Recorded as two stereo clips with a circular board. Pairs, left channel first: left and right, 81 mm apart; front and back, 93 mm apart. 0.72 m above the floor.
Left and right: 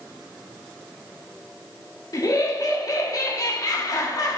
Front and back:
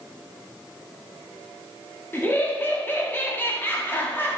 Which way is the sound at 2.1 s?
60° left.